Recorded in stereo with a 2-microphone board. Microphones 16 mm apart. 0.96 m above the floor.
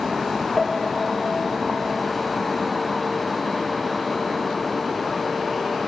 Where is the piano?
15° left (ahead or behind), 0.7 m.